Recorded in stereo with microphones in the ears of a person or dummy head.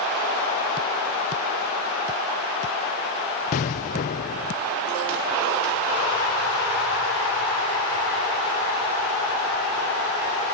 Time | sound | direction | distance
3.5 | an explosion | 40° left (ahead or behind) | 0.6 m